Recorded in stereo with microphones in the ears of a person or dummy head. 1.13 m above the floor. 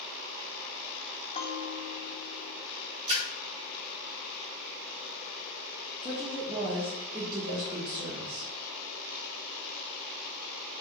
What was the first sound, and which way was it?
A bell, 30° left (ahead or behind).